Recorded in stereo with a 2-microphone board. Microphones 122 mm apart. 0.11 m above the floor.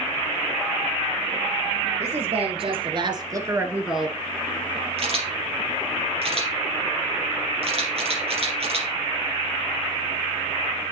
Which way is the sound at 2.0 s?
60° right (ahead or behind).